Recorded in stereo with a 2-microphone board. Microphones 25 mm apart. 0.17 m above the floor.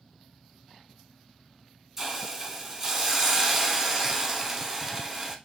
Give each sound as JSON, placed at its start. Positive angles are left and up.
{"t": 2.0, "sound": "a hiss", "side_deg": -15, "distance_m": 0.7}